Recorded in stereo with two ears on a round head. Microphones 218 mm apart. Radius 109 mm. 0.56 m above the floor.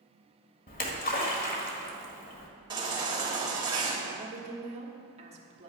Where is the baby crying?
20° right (ahead or behind), 1.9 m.